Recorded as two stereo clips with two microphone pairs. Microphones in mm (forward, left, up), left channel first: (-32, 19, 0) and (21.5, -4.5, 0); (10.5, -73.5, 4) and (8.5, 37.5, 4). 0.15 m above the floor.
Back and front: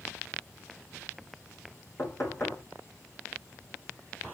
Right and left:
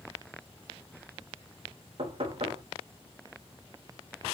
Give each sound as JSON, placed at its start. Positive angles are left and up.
{"t": 2.0, "sound": "knocking", "azimuth_deg": 120, "distance_m": 5.0}